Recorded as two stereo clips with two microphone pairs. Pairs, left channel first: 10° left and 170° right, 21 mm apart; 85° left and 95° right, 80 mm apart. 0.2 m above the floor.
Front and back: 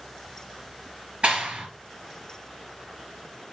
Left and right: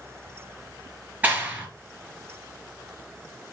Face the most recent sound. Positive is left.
turn(degrees=-160)